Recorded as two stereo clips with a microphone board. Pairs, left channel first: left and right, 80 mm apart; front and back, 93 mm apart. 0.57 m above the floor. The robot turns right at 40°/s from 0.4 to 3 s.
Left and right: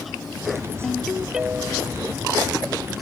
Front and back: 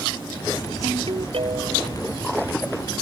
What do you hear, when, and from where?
0.8 s a ringtone: 165° left; by 2.0 s 150° right